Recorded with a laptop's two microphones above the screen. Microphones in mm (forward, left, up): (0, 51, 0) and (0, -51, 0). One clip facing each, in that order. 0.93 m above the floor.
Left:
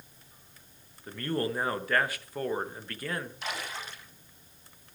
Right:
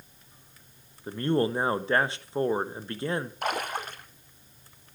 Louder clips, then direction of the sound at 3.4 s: Right 7 dB; 50° right (ahead or behind).